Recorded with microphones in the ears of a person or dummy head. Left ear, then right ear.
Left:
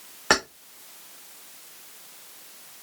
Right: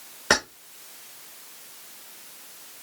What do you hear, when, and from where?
0.3 s keys jangling: 10° left (ahead or behind), 0.9 m